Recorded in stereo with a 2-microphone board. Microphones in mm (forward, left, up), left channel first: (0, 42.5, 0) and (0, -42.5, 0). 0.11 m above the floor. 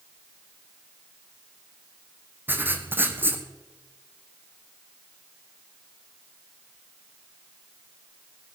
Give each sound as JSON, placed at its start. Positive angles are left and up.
{"t": 2.5, "sound": "writing", "side_deg": -25, "distance_m": 1.5}